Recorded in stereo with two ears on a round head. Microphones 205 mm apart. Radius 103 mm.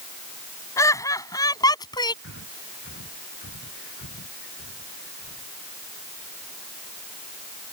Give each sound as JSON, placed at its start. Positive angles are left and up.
{"t": 0.8, "sound": "laughter", "side_deg": 10}
{"t": 2.2, "sound": "breathing", "side_deg": 45}